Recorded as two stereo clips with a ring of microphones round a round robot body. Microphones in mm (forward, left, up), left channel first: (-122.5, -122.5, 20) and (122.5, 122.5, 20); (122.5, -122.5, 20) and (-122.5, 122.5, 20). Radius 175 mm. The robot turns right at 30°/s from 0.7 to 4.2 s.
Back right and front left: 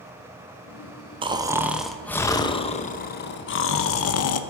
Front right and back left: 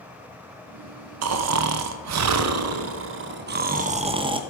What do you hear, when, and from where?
1.2 s snoring: 115° left, 0.7 m; by 4.4 s 155° right, 0.7 m